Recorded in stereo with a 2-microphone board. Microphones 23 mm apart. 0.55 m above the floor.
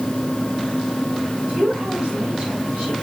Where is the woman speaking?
60° right (ahead or behind), 5 m; by 2.9 s 65° right (ahead or behind), 6 m.